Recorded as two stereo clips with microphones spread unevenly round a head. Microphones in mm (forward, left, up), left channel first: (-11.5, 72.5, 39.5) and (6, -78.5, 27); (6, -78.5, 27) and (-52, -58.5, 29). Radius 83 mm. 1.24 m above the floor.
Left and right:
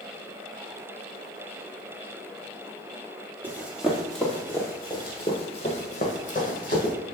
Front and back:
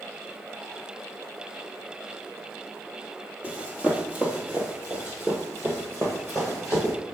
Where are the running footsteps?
155° right, 1.3 m; by 6.9 s 100° left, 2 m.